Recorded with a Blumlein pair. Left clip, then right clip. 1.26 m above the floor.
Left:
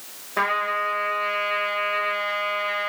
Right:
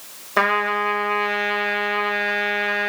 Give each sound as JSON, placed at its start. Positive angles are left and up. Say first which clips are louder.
{"t": 0.4, "sound": "a trumpet", "louder": "right 4 dB", "azimuth_deg": -25, "distance_m": 1.7}